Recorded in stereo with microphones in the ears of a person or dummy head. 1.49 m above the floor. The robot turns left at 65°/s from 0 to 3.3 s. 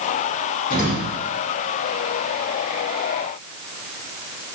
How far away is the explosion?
About 1.3 m.